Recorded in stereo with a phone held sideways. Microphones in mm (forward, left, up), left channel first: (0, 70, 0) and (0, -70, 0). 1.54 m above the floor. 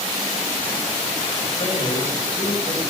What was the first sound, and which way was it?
A man speaking, 45° left (ahead or behind).